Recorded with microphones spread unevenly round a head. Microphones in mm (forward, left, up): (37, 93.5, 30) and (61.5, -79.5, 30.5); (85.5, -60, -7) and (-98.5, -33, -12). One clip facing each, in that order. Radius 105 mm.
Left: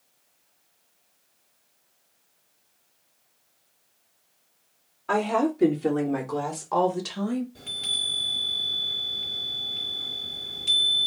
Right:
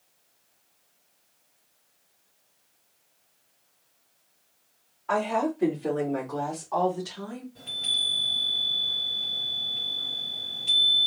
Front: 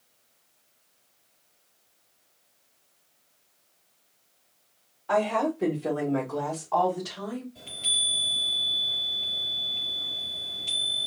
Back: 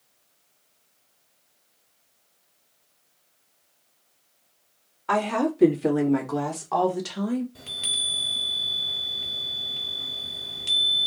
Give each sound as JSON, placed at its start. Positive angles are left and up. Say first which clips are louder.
{"t": 5.1, "sound": "a woman speaking", "louder": "left 3 dB, back 1 dB", "azimuth_deg": 160, "distance_m": 2.5}
{"t": 7.5, "sound": "a chime", "louder": "left 1 dB, back 2 dB", "azimuth_deg": 160, "distance_m": 2.5}